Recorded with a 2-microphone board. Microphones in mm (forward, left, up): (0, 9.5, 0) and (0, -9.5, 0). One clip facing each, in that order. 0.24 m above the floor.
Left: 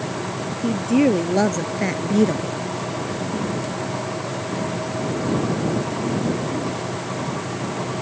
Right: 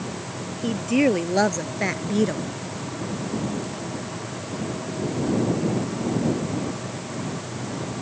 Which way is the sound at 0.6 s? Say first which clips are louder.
Left 2 dB; 15° right (ahead or behind).